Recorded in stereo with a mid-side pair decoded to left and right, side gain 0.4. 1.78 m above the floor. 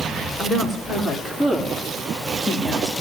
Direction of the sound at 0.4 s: 40° left.